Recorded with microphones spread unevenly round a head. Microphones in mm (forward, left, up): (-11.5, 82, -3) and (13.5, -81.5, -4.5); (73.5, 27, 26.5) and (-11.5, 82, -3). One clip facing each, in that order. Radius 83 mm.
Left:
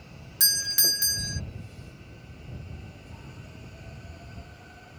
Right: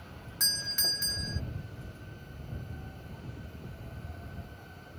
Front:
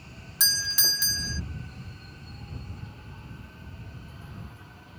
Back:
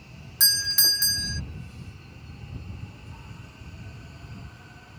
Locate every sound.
0.4 s a doorbell: 70° left